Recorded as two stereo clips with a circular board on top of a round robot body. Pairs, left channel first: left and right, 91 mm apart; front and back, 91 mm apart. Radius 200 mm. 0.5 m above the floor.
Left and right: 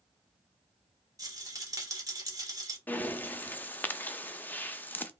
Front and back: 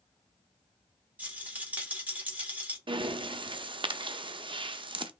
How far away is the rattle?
About 1.3 m.